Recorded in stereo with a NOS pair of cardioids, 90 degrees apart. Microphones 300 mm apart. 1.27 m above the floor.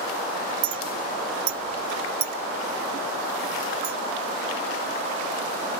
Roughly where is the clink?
Ahead right.